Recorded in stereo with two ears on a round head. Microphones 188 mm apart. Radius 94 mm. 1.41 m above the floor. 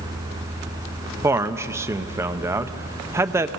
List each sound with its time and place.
1.2 s a man speaking: 15° right (ahead or behind), 0.6 m